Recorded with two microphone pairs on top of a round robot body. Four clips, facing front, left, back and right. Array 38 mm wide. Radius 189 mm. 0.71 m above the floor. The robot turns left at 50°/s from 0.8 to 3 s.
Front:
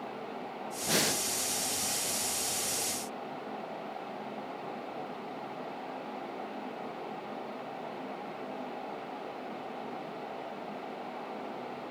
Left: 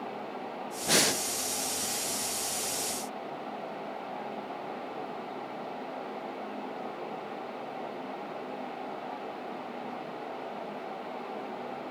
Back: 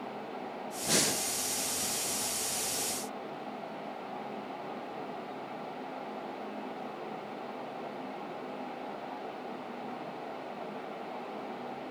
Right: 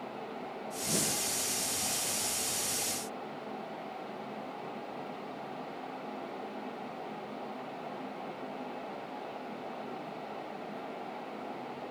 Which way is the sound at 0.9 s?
80° left.